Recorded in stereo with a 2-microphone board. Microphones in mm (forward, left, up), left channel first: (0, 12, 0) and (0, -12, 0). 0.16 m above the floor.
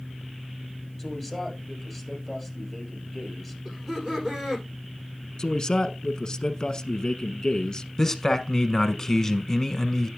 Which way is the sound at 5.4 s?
35° left (ahead or behind).